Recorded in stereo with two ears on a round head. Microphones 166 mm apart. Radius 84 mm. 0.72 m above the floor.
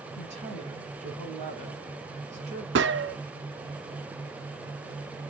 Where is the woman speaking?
40° right (ahead or behind), 5 m.